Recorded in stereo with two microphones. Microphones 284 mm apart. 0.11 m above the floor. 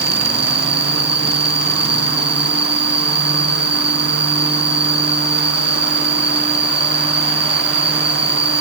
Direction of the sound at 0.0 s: 20° right (ahead or behind).